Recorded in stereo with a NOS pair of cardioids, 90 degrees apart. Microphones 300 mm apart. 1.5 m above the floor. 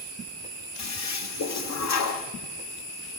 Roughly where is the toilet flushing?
Ahead left.